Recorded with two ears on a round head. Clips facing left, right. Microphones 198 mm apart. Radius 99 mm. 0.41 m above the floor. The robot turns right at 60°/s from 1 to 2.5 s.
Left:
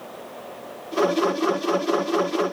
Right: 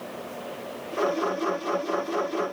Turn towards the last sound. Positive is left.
No sound to turn to.